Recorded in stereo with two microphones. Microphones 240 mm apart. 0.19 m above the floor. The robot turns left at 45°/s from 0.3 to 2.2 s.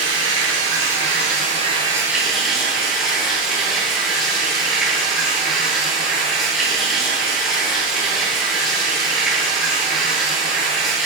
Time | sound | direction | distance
0.0 | running water | 95° right | 0.9 m